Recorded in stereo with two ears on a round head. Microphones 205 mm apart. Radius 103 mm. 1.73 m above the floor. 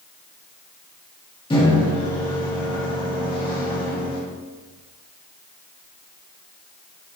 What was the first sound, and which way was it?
A microwave, 20° left (ahead or behind).